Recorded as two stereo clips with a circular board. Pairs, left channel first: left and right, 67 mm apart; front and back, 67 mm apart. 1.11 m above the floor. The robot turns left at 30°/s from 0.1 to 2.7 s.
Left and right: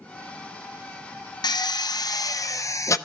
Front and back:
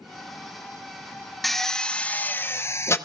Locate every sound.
1.4 s a drill: 90° left, 0.5 m; by 3.0 s 50° left, 0.5 m